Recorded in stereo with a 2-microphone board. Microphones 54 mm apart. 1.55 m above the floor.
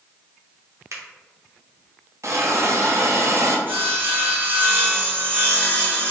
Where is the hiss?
60° right (ahead or behind), 0.6 m.